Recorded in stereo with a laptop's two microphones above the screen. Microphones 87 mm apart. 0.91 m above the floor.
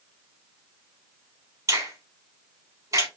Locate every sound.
1.7 s a finger snap: 40° right (ahead or behind), 3 m